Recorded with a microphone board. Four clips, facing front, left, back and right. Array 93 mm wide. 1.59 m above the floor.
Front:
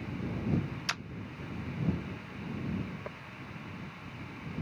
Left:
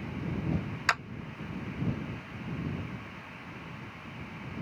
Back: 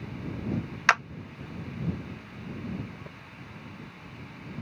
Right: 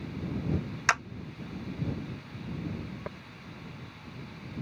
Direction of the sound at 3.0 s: 65° right.